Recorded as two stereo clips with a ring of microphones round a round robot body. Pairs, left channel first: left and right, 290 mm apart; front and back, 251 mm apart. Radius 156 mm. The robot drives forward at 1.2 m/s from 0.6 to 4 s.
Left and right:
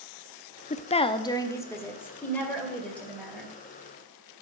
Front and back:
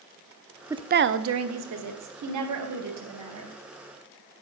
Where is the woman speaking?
110° left, 0.5 m; by 3.5 s 175° left, 3.5 m.